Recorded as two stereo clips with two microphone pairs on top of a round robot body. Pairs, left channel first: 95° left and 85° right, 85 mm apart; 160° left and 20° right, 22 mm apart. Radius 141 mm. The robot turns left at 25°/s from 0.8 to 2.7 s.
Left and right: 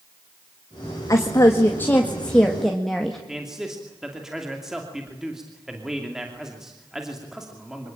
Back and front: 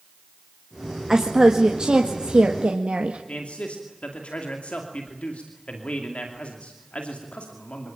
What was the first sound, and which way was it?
A woman speaking, 50° left.